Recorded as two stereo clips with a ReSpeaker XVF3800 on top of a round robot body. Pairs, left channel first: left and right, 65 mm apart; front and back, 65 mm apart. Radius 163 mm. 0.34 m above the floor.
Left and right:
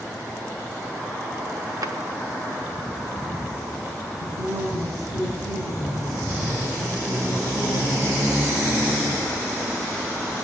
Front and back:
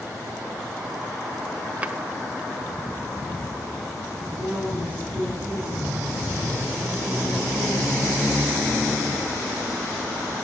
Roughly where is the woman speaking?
Behind right.